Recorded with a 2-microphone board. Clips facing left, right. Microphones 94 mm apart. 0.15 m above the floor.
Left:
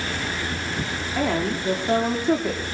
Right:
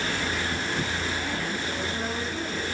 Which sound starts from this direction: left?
A woman speaking, at 1.1 s.